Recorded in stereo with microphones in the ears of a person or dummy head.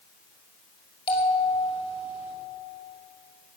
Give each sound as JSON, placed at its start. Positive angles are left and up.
{"t": 1.1, "sound": "a bell", "side_deg": 35, "distance_m": 5.0}